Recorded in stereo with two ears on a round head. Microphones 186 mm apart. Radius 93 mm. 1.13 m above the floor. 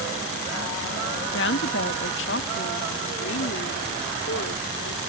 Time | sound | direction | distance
1.3 | a woman speaking | 55° left (ahead or behind) | ?